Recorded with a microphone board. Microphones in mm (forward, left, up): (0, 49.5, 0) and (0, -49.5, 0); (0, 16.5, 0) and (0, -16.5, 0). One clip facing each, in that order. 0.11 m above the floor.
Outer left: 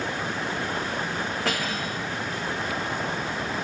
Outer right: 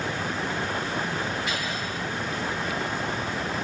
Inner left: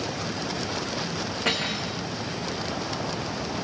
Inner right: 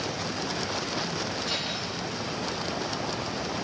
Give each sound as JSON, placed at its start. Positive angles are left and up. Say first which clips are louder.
{"t": 1.4, "sound": "cutlery clinking", "louder": "outer left 2 dB, inner left 4 dB", "side_deg": 75, "distance_m": 5.5}